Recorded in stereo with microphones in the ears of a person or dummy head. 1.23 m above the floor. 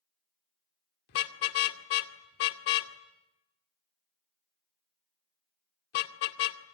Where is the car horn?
60° left (ahead or behind), 2 m.